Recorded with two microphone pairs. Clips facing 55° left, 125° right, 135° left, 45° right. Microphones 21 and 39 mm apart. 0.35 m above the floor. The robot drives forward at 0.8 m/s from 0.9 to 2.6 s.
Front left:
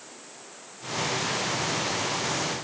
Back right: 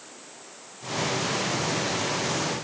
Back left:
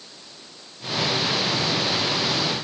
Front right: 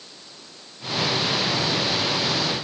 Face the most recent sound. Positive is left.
No sound to turn to.